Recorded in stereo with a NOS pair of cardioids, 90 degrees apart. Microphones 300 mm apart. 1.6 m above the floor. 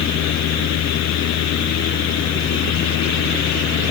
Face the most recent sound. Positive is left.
turn(degrees=70)